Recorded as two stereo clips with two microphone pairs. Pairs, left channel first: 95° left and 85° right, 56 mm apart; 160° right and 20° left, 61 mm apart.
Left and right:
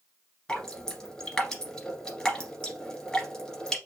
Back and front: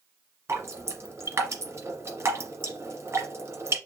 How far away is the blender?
I don't hear a blender.